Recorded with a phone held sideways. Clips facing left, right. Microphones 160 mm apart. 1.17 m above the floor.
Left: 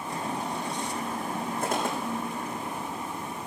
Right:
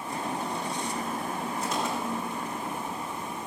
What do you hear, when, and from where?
1.6 s footsteps: 55° left (ahead or behind), 3.5 m